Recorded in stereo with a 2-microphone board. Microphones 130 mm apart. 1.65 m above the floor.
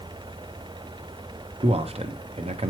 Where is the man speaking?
50° right (ahead or behind), 0.7 m.